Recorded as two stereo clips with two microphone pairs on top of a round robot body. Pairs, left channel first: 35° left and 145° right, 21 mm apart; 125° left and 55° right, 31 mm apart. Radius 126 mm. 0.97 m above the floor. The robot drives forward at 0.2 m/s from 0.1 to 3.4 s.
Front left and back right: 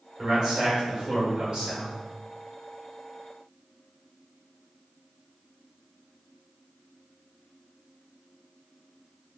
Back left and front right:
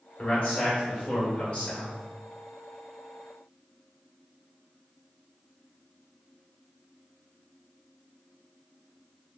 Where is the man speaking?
165° left, 1.9 m.